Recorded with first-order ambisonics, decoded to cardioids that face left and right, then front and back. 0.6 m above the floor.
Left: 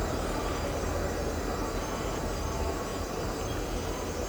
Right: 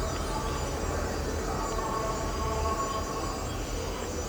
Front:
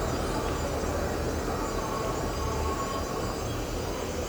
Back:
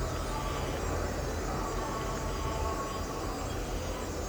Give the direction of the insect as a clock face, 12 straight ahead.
2 o'clock.